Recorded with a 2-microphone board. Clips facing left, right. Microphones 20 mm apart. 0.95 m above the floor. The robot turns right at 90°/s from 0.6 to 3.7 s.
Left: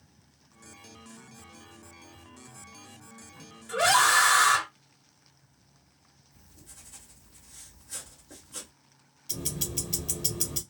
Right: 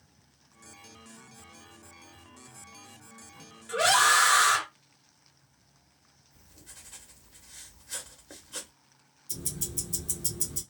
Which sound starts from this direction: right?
Writing, at 6.3 s.